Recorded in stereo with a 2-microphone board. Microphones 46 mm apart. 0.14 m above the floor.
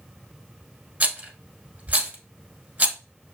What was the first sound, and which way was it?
A rattle, 35° right (ahead or behind).